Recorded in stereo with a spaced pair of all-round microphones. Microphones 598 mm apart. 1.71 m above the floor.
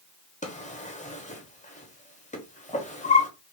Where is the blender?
No blender in this recording.